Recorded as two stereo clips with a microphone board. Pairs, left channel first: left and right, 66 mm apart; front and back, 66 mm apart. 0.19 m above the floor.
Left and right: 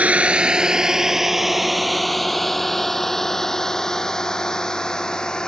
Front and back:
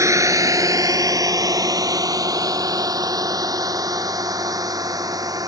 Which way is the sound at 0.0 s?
155° right.